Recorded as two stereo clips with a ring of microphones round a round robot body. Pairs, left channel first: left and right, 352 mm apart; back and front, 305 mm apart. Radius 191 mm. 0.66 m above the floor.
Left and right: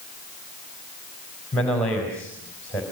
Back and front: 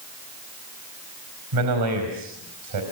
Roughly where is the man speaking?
Ahead.